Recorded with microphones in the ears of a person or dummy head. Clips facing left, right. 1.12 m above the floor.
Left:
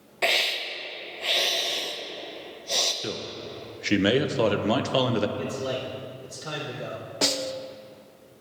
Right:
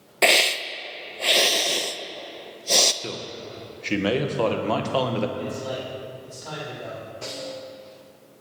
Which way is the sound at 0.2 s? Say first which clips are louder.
Right 6 dB; 65° right (ahead or behind).